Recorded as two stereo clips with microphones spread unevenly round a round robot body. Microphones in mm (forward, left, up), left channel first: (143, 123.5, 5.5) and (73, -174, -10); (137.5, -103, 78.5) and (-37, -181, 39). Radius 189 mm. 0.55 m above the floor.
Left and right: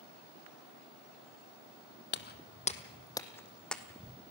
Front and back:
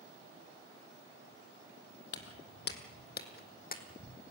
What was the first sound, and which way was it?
Footsteps, 25° left.